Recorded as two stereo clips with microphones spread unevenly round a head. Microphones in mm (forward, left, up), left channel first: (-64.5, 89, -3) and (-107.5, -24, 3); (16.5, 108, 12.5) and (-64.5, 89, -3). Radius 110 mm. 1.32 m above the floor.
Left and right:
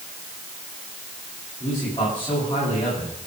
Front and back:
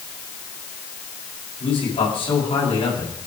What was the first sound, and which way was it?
A man speaking, straight ahead.